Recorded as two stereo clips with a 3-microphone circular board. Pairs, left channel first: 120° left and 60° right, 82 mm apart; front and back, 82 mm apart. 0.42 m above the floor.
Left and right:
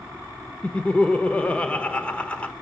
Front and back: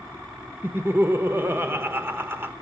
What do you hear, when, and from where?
0.6 s laughter: 175° left, 1.0 m